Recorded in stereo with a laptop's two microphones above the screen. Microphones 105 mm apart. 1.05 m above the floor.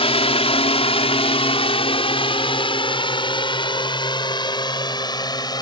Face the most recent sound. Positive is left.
turn(degrees=40)  # may be behind; listen again after turning